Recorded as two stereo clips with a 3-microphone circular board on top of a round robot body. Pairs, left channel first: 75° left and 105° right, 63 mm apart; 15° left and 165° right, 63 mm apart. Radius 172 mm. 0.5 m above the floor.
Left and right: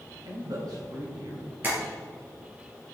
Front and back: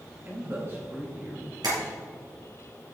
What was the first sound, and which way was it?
A man speaking, 110° right.